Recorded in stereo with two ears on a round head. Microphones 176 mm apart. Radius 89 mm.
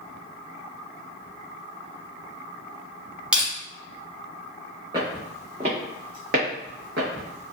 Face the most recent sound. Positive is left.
turn(degrees=-70)  # may be behind; listen again after turning